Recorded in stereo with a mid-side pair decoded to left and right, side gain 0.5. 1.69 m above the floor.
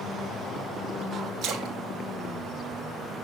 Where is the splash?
60° right, 3 m.